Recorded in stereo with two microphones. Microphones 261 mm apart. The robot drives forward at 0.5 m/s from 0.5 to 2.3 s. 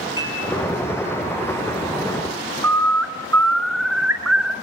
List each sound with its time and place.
0.2 s dishes clattering: 45° right (ahead or behind), 7.5 m
2.6 s a bird: 70° right (ahead or behind), 1.7 m